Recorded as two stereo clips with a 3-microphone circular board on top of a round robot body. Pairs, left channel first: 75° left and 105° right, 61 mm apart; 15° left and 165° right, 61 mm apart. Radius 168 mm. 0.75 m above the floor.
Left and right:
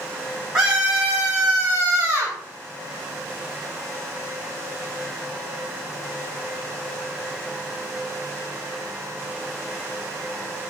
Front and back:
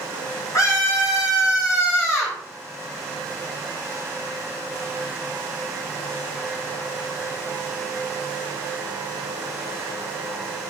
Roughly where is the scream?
Ahead.